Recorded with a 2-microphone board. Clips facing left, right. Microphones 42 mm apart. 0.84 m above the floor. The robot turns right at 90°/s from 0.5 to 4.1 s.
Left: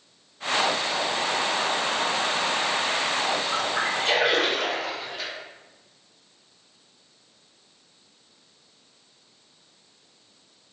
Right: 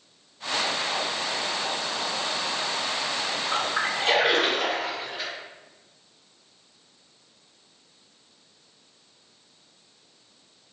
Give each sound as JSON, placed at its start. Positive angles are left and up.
{"t": 3.5, "sound": "a splash", "side_deg": -50, "distance_m": 1.2}